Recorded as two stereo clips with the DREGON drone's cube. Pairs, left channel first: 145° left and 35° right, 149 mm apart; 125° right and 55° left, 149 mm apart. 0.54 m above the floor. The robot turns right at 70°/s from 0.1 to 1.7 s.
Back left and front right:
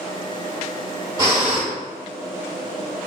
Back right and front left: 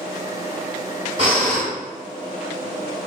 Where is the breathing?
25° left, 1.6 m; by 1.7 s 60° left, 1.6 m.